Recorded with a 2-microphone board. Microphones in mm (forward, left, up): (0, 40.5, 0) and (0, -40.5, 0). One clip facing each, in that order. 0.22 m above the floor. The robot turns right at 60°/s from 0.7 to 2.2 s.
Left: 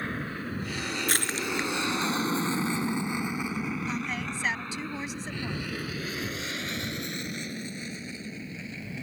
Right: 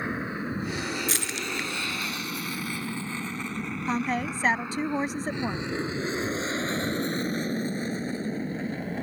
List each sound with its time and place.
0.0 s an aircraft: 15° right (ahead or behind); by 9.0 s 45° right (ahead or behind)
1.1 s crushing: 55° left (ahead or behind); by 2.9 s 10° right (ahead or behind)
3.9 s a woman speaking: 45° right (ahead or behind)